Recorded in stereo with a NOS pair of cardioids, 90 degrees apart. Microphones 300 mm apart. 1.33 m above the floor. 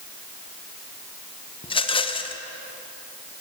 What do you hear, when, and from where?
1.6 s a rattle: 20° left, 0.6 m